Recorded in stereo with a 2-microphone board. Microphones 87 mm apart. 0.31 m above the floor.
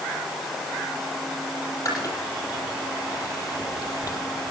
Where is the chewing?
40° left (ahead or behind), 6.5 m.